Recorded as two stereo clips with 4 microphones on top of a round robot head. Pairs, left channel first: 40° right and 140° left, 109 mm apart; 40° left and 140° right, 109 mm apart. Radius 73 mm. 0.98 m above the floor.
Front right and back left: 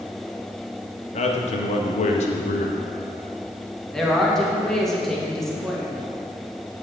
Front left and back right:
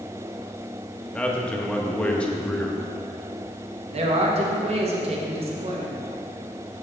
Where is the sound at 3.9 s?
130° right, 1.6 m.